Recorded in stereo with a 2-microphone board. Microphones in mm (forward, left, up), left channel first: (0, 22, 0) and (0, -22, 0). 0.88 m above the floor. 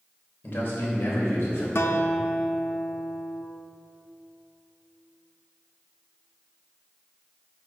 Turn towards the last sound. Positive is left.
turn(degrees=65)  # may be behind; listen again after turning